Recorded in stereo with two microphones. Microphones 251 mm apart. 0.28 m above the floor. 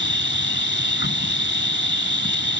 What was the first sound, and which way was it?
An insect, 45° left (ahead or behind).